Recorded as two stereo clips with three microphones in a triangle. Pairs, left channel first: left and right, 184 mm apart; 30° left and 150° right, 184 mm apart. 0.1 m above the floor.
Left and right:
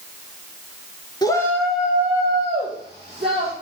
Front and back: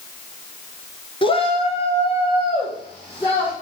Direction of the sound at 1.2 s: 50° left.